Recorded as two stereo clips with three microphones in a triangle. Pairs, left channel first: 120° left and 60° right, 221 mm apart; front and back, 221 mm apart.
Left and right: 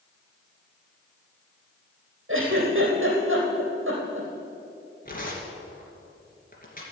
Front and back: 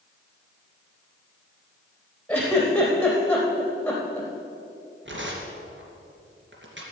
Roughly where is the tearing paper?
Behind.